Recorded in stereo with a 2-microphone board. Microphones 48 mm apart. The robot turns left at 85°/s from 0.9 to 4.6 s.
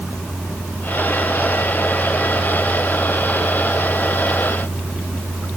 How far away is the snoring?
No snoring in this recording.